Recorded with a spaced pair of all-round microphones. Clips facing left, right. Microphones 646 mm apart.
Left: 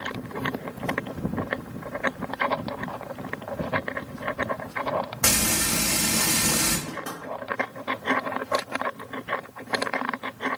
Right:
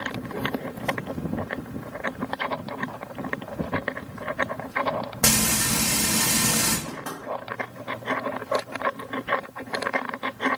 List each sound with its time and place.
5.2 s frying: 60° right (ahead or behind), 1.0 m
6.9 s knocking: 35° right (ahead or behind), 1.5 m